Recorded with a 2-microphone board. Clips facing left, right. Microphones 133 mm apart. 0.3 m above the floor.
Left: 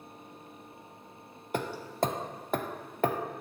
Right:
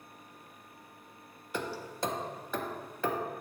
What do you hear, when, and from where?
1.5 s hammering: 55° left (ahead or behind), 0.6 m